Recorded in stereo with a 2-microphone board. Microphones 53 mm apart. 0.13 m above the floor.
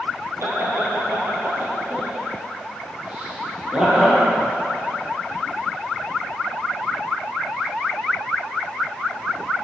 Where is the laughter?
50° right (ahead or behind), 2.5 m; by 4.2 s 10° right (ahead or behind), 3 m.